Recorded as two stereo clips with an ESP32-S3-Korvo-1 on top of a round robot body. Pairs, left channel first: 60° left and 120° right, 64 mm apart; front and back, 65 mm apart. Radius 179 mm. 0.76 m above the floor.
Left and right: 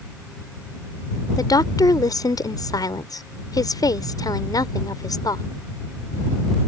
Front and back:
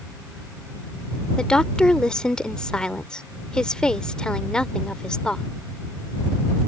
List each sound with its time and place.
1.4 s a woman speaking: 80° left